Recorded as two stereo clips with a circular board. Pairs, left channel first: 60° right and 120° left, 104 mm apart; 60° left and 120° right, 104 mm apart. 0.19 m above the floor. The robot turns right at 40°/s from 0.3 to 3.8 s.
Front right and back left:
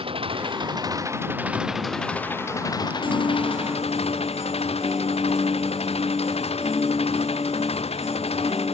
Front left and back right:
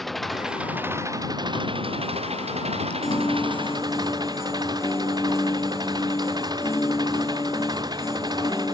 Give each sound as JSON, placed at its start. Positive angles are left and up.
{"t": 0.0, "sound": "an engine running", "azimuth_deg": 150}
{"t": 3.0, "sound": "a piano", "azimuth_deg": -35}